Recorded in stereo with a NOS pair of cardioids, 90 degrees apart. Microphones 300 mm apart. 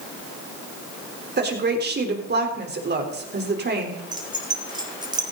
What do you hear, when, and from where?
1.4 s a woman speaking: 35° right, 3.5 m
4.1 s keys jangling: 15° right, 3 m